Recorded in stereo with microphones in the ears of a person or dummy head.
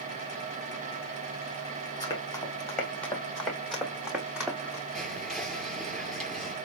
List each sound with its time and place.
2.0 s running footsteps: 25° left (ahead or behind), 2.5 m; by 4.8 s 5° right (ahead or behind), 3.5 m
4.9 s whispering: centre (ahead or behind), 4 m